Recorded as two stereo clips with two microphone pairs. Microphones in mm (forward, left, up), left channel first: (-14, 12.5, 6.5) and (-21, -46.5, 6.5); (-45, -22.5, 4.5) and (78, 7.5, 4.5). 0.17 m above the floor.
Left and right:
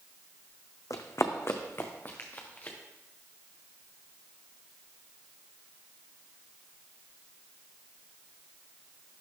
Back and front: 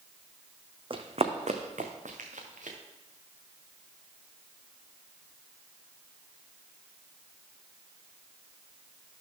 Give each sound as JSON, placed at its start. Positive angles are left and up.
{"t": 0.9, "sound": "running footsteps", "azimuth_deg": 60, "distance_m": 0.7}